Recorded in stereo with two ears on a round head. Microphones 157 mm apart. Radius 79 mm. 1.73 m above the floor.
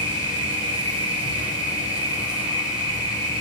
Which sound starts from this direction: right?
An insect, at 0.0 s.